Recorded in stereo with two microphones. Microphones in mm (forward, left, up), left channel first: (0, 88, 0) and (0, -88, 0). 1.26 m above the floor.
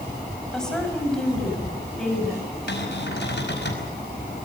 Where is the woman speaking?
5° left (ahead or behind), 6 m.